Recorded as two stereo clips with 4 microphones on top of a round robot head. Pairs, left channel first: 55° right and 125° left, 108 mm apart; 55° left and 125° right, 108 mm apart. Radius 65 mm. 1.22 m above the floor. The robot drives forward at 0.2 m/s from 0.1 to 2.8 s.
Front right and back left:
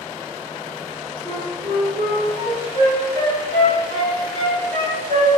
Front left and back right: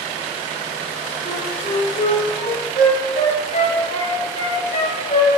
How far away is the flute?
About 2.5 m.